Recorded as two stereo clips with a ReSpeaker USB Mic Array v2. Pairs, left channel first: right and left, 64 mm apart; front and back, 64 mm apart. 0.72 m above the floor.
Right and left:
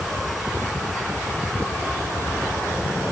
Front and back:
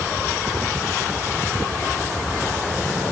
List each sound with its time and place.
Only background noise.